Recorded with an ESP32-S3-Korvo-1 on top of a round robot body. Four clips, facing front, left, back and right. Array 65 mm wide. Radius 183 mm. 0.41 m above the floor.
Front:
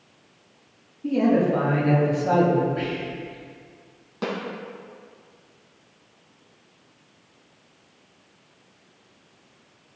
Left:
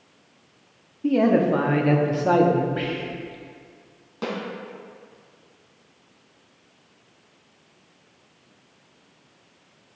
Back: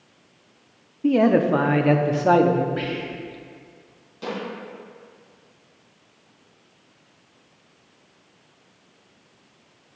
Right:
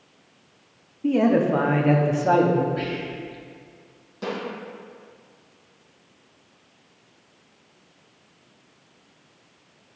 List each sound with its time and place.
1.0 s a man speaking: 170° left, 1.0 m
2.8 s whispering: 125° left, 1.6 m
4.2 s a snare drum: 35° left, 3 m